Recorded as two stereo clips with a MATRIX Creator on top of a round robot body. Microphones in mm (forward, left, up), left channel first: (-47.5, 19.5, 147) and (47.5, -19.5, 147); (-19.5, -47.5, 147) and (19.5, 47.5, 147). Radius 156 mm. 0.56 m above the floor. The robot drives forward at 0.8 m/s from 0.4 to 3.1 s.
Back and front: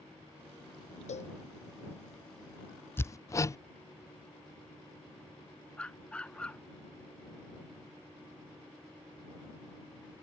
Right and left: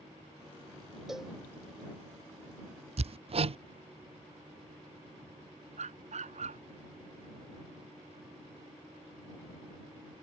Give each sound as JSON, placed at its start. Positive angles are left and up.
{"t": 1.1, "sound": "a cowbell", "azimuth_deg": 155}
{"t": 3.0, "sound": "hammering", "azimuth_deg": 85}
{"t": 5.8, "sound": "a dog barking", "azimuth_deg": 75}